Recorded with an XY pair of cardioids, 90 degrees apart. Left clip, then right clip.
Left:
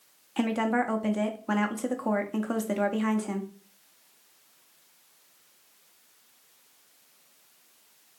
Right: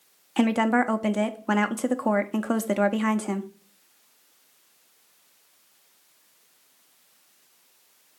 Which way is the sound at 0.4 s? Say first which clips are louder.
Right 5 dB; 45° right.